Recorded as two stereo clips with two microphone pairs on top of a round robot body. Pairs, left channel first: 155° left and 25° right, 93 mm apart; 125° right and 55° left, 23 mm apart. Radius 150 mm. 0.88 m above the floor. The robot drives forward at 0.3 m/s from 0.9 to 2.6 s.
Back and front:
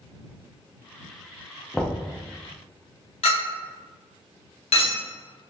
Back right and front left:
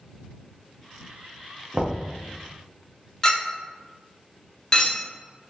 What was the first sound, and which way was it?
Knocking, 65° left.